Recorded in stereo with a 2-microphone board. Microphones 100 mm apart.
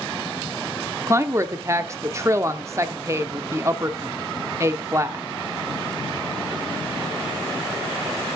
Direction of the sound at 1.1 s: 30° right (ahead or behind).